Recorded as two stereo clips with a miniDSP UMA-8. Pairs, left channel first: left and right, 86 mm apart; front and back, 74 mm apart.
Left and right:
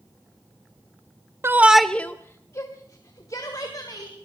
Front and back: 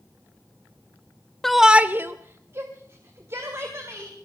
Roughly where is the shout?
Right.